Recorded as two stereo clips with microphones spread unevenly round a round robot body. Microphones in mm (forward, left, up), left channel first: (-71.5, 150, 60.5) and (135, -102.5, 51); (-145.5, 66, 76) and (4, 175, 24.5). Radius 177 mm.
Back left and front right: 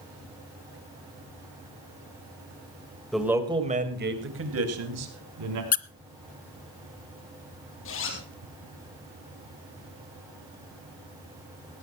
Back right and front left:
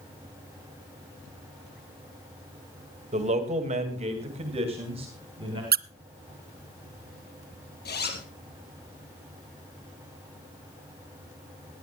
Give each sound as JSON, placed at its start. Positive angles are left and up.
{"t": 3.1, "sound": "a man speaking", "azimuth_deg": 40, "distance_m": 2.5}
{"t": 5.7, "sound": "a squeak", "azimuth_deg": 65, "distance_m": 0.6}
{"t": 7.8, "sound": "a zipper", "azimuth_deg": -175, "distance_m": 2.5}